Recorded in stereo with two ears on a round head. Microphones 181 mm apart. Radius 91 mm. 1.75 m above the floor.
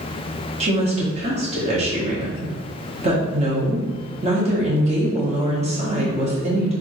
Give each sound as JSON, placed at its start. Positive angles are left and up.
{"t": 0.6, "sound": "a woman speaking", "side_deg": -30, "distance_m": 1.4}